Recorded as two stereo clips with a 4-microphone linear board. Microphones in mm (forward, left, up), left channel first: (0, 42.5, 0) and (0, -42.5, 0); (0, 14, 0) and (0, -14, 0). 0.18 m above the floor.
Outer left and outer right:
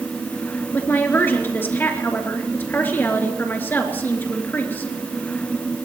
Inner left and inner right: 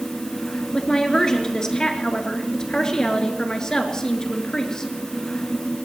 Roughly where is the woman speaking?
Left.